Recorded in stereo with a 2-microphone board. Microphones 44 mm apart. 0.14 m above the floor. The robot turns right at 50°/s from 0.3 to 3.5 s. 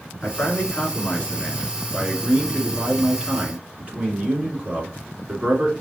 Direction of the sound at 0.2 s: 80° left.